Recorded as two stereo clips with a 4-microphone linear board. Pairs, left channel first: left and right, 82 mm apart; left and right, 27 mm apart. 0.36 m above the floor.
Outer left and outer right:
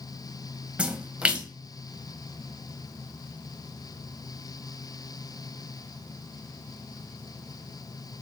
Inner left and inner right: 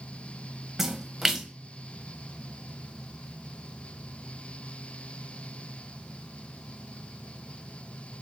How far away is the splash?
About 0.6 m.